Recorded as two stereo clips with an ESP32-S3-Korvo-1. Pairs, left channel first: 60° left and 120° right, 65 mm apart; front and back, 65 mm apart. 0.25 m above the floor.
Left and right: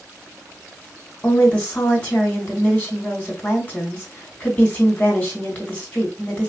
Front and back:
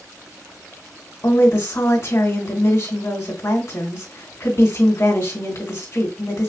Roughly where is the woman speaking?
Ahead.